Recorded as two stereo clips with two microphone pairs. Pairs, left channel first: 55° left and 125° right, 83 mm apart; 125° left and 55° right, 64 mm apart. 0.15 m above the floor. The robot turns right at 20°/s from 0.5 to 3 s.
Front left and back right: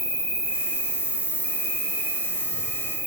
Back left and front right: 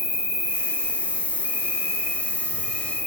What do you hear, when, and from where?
0.0 s an insect: 55° right, 0.9 m; by 3.1 s 5° right, 0.9 m